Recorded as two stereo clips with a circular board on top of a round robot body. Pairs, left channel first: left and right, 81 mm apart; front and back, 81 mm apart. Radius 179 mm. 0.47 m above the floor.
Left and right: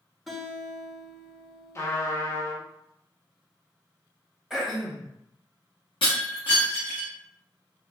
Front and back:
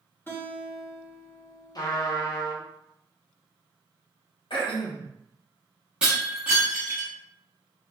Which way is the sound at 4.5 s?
5° right.